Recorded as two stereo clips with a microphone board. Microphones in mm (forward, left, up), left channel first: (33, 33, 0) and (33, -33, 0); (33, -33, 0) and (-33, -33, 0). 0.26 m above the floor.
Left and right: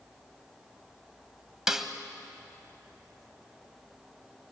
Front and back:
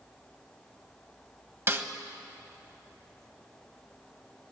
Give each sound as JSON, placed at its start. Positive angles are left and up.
{"t": 1.7, "sound": "a snare drum", "azimuth_deg": -170, "distance_m": 1.2}